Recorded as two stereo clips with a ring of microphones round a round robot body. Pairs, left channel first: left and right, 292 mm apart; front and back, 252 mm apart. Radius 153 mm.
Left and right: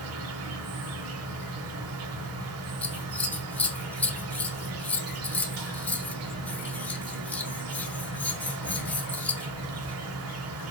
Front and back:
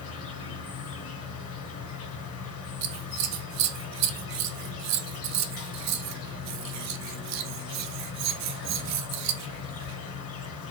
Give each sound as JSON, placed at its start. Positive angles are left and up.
{"t": 0.0, "sound": "an insect", "azimuth_deg": -45, "distance_m": 0.8}
{"t": 2.8, "sound": "scissors", "azimuth_deg": 175, "distance_m": 0.6}